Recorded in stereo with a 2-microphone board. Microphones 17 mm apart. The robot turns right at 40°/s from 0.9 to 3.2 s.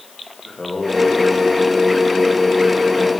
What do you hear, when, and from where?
0.5 s singing: 60° left, 7.5 m; by 3.1 s 145° left, 7.5 m